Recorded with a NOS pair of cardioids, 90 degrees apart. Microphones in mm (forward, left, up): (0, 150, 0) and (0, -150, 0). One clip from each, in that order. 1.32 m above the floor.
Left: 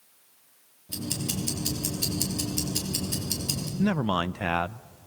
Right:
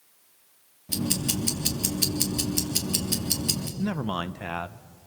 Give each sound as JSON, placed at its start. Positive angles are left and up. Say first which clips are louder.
{"t": 0.9, "sound": "ticking", "louder": "right 4 dB", "azimuth_deg": -55, "distance_m": 3.5}
{"t": 3.8, "sound": "a man speaking", "louder": "left 4 dB", "azimuth_deg": 25, "distance_m": 0.6}